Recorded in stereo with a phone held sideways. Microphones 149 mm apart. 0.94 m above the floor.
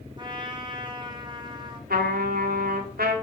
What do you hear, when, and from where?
0.2 s a trumpet: 30° right (ahead or behind), 1.4 m
1.9 s a trumpet: 90° right, 2 m